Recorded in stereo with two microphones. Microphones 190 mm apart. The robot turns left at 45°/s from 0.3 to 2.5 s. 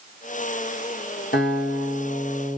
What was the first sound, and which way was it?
A guitar, 70° left.